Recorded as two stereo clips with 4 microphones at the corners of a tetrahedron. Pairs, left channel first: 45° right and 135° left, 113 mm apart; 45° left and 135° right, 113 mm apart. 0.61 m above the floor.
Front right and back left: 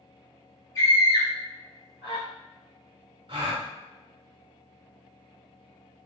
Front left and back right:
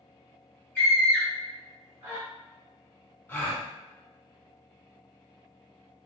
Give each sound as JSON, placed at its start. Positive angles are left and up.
{"t": 0.8, "sound": "a scream", "azimuth_deg": -10, "distance_m": 1.4}
{"t": 3.3, "sound": "a gasp", "azimuth_deg": 115, "distance_m": 0.8}